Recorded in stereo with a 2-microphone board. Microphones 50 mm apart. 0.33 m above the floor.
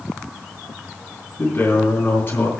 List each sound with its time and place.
1.4 s a man speaking: 50° left (ahead or behind), 3 m